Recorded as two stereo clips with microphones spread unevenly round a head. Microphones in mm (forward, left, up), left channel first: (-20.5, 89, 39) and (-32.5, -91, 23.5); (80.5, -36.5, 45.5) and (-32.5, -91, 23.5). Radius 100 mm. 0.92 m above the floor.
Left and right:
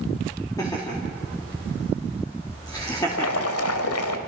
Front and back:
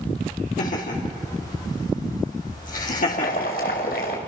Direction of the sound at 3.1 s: 70° left.